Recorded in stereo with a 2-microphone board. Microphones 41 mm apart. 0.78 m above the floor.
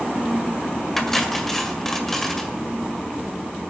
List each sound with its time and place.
1.0 s cutlery clinking: 5° left (ahead or behind), 1.8 m